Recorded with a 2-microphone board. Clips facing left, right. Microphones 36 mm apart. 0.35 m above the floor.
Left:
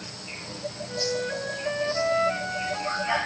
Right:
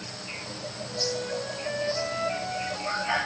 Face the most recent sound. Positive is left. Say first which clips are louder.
# left 2 dB
turn(degrees=15)  # may be behind; listen again after turning